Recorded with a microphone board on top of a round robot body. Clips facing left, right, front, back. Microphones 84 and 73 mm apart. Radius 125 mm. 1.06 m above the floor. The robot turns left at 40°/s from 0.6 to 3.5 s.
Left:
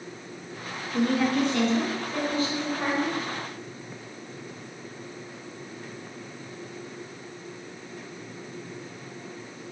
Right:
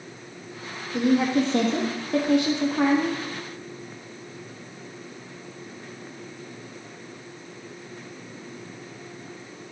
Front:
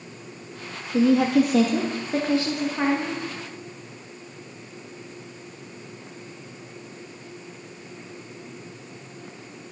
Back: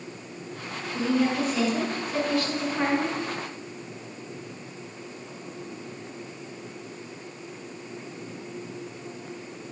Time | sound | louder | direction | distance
0.9 | a woman speaking | right 3 dB, front 6 dB | 10° right | 1.6 m